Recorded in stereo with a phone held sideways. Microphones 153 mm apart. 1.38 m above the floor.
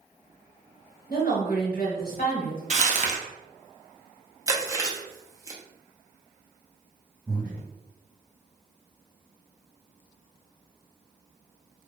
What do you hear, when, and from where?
1.1 s a woman speaking: 75° left (ahead or behind), 1.1 m
2.7 s crumpling: 50° right (ahead or behind), 0.5 m
4.5 s chewing: 20° right (ahead or behind), 0.6 m
7.3 s breathing: 5° left (ahead or behind), 1.6 m